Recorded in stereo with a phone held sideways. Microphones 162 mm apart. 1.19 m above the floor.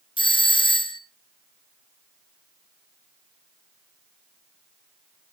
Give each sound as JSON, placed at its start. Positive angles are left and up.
{"t": 0.2, "sound": "a doorbell", "side_deg": 35, "distance_m": 0.9}